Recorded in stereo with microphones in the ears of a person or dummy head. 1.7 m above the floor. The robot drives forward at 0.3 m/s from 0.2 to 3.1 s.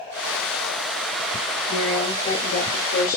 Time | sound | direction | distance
1.7 | a woman speaking | 70° left (ahead or behind) | 0.6 m